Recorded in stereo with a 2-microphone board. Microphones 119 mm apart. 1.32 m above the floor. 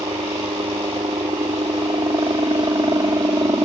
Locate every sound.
0.0 s a helicopter: 40° right (ahead or behind); by 3.6 s 30° right (ahead or behind)